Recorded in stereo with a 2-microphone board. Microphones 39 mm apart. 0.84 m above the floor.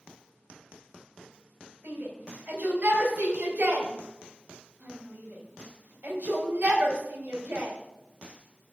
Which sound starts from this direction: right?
A shout, at 1.8 s.